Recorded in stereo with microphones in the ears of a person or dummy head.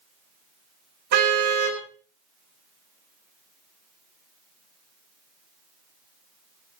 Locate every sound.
1.1 s a car horn: 55° right (ahead or behind), 4.5 m